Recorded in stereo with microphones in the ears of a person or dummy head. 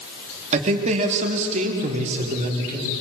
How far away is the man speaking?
About 3 m.